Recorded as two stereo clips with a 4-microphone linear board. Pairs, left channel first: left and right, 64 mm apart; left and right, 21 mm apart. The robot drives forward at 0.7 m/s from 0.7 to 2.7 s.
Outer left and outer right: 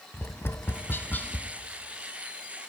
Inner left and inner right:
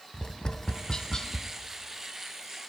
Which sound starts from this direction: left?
Tapping, at 0.1 s.